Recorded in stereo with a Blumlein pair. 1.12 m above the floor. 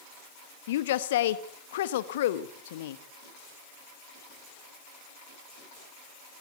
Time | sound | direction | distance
0.7 | a woman speaking | 55° left | 1.3 m